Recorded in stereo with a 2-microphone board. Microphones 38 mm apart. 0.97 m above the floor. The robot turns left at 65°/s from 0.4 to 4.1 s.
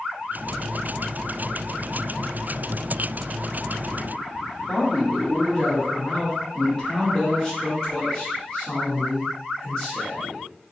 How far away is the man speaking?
About 1.1 m.